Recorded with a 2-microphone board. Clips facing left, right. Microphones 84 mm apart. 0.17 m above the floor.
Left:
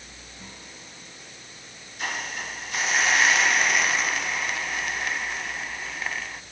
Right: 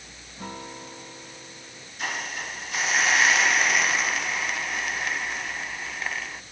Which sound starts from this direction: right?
A guitar, at 0.4 s.